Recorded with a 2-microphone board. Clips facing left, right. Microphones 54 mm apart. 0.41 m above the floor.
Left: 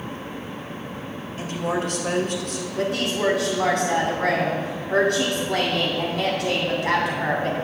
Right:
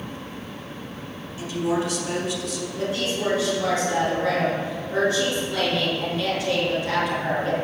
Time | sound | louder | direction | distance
1.4 | a woman speaking | right 1 dB | 45° left (ahead or behind) | 1.6 m
2.8 | a woman speaking | left 3 dB | 70° left (ahead or behind) | 3 m